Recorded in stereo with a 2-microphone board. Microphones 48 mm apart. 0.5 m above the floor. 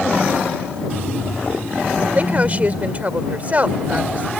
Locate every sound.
2.1 s a woman speaking: 35° right (ahead or behind)